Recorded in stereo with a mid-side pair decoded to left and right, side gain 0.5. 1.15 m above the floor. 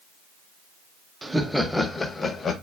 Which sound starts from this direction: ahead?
Laughter, at 1.2 s.